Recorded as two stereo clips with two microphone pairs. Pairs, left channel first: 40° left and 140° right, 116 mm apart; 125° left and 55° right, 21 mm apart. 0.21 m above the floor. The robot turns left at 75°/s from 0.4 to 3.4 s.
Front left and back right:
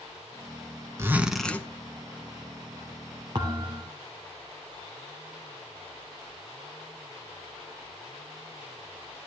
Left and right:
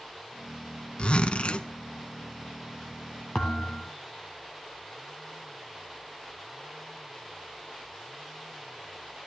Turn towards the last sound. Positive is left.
turn(degrees=160)